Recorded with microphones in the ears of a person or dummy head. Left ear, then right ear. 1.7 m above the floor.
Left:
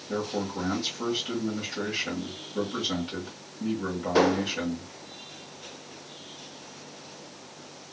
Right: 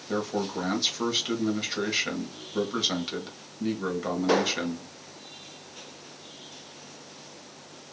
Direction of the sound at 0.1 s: 40° right (ahead or behind).